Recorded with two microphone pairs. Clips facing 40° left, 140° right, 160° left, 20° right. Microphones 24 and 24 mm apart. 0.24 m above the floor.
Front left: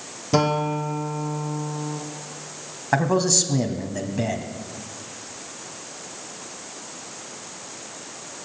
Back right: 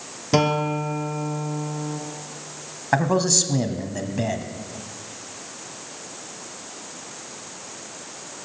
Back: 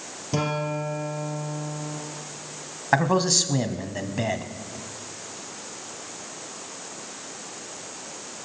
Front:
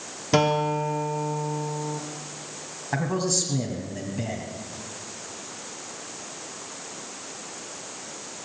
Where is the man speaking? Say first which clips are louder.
Even, back 6 dB; 150° left, 1.3 m.